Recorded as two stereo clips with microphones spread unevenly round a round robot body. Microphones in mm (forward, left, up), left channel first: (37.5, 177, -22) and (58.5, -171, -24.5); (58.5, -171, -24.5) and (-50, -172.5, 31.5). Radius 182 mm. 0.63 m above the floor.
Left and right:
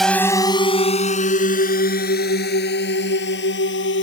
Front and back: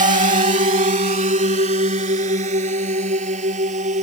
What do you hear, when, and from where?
0.0 s a drone: 175° right; by 4.0 s 155° left